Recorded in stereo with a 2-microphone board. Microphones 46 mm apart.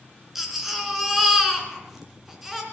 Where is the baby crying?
5° right (ahead or behind), 2.5 m.